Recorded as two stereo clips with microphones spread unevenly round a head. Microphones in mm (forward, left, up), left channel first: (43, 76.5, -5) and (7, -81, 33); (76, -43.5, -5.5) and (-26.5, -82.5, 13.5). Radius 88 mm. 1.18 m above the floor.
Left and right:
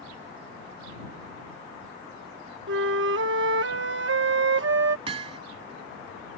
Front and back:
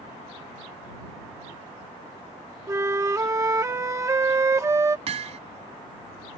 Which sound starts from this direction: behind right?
Hammering, at 5.1 s.